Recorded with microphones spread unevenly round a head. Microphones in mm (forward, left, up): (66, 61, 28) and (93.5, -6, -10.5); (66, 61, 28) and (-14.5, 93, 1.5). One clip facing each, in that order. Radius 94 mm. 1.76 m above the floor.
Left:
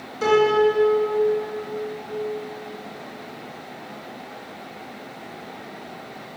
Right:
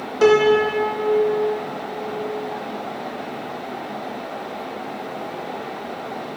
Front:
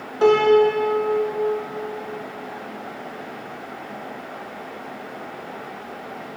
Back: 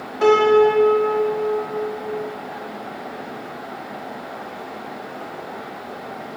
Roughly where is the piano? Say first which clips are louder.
Right 3 dB, back 1 dB; right.